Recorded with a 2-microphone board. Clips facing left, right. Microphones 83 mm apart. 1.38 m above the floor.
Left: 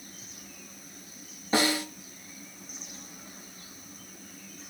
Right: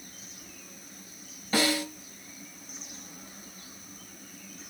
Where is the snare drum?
20° left (ahead or behind), 2 m.